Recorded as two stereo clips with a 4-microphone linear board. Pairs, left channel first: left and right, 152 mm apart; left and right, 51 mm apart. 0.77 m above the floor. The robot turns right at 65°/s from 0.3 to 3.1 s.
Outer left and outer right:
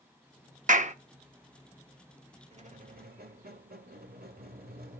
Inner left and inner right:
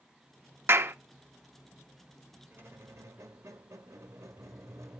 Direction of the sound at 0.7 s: 55° right (ahead or behind).